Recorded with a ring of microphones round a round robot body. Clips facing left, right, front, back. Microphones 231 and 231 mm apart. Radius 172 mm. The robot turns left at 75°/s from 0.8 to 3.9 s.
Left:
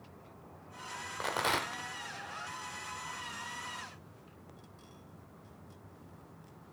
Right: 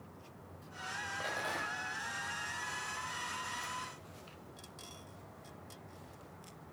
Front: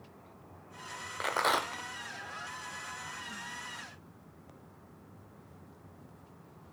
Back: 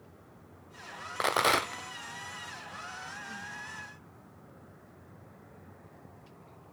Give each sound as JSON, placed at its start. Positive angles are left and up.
{"t": 1.2, "sound": "a rattle", "azimuth_deg": 140, "distance_m": 0.6}